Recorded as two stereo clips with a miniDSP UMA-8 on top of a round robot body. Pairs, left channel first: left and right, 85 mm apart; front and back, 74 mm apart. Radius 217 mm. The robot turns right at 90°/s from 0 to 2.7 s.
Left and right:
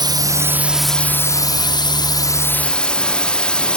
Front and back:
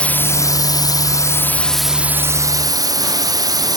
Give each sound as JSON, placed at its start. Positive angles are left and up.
{"t": 0.0, "sound": "a drone", "azimuth_deg": -75}